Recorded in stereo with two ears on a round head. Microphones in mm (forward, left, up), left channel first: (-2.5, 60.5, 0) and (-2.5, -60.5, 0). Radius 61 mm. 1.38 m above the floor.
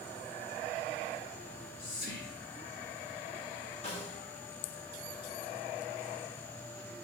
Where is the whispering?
80° left, 2.5 m.